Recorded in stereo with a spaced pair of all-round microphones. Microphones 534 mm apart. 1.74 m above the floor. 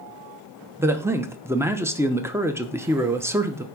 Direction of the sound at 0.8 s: 5° right (ahead or behind).